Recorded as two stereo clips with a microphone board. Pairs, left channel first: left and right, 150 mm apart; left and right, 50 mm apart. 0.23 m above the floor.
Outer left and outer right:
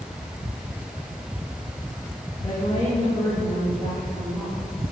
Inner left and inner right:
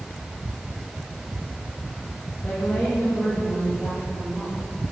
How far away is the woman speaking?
About 5 m.